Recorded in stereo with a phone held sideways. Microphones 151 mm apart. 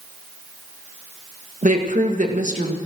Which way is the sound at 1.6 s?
60° right (ahead or behind).